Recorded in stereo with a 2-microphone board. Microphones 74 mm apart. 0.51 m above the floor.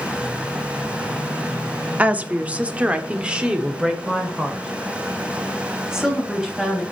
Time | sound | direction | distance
2.0 | a woman speaking | 20° right (ahead or behind) | 0.8 m